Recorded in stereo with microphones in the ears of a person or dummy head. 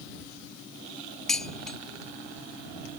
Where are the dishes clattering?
Centre (ahead or behind).